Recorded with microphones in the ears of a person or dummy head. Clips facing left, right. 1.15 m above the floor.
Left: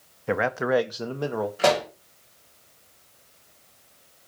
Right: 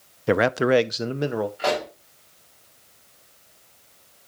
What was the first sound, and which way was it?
A man speaking, 45° right (ahead or behind).